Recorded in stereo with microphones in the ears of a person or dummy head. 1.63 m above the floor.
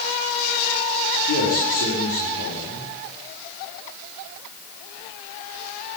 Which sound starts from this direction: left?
A man speaking, at 1.3 s.